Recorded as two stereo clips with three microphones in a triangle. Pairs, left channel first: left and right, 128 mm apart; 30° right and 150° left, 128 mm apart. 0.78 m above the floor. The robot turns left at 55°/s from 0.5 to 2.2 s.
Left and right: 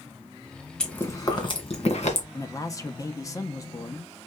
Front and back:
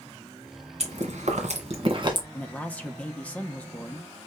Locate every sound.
0.8 s chewing: 175° left, 1.7 m; by 2.2 s 95° left, 1.7 m
2.3 s a man speaking: 40° left, 0.9 m